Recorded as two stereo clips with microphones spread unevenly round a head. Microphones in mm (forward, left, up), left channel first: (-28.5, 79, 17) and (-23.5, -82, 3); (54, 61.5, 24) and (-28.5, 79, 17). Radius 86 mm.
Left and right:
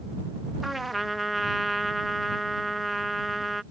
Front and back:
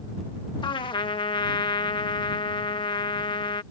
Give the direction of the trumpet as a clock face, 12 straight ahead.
12 o'clock.